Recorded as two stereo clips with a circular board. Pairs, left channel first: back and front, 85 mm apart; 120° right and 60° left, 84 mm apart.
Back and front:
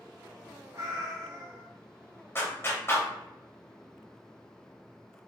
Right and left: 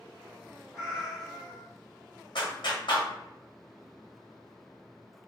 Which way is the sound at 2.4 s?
120° right.